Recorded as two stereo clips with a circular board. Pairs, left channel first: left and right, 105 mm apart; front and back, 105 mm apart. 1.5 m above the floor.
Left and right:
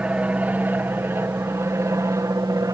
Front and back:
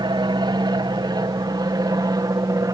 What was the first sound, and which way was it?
An aircraft, 165° right.